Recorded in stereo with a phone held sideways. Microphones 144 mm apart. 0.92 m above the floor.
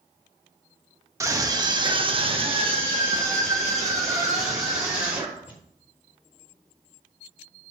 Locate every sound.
1.2 s a scream: 20° right (ahead or behind), 1.6 m; by 5.6 s 15° right (ahead or behind), 4 m